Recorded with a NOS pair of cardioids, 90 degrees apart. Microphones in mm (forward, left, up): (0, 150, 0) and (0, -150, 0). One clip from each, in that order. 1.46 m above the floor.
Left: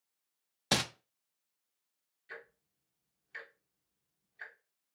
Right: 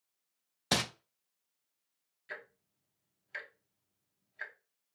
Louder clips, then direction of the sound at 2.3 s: Right 3 dB; 30° right.